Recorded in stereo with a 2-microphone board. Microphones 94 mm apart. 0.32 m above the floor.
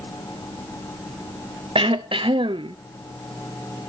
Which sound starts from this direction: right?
Throat clearing, at 1.8 s.